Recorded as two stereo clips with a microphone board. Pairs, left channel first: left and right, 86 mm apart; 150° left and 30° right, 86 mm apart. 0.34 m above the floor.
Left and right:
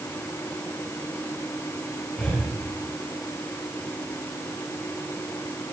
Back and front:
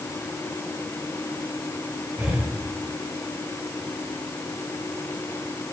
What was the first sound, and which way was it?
Breathing, 50° left.